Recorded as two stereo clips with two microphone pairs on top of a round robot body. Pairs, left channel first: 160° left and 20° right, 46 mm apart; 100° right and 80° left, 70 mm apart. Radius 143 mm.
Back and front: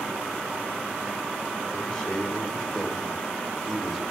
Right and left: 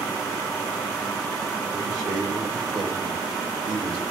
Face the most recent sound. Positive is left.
turn(degrees=70)